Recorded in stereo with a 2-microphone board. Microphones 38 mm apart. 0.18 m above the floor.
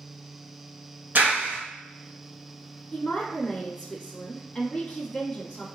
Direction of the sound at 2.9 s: 15° left (ahead or behind).